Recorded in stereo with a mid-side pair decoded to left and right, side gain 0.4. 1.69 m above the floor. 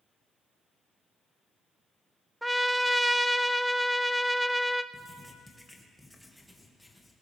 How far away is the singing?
I don't hear singing.